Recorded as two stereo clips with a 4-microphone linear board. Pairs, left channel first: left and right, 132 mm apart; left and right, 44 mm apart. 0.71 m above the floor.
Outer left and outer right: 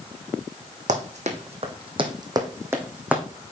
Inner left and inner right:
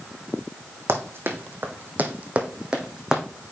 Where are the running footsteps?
65° right (ahead or behind), 1.6 m; by 3.2 s 10° right (ahead or behind), 1.7 m.